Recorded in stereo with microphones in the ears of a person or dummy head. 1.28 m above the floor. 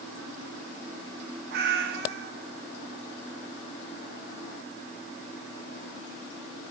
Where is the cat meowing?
60° right (ahead or behind), 1.1 m.